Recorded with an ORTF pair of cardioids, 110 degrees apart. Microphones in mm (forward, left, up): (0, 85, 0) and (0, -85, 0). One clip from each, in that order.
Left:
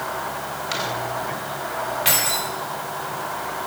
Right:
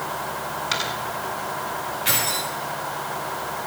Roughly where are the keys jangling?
Ahead left.